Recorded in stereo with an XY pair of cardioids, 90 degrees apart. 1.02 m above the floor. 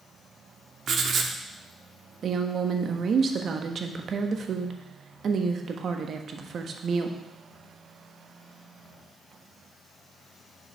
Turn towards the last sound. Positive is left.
turn(degrees=-55)